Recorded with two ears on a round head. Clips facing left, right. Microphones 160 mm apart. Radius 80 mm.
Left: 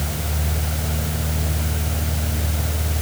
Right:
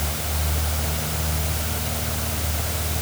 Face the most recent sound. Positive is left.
No sound to turn to.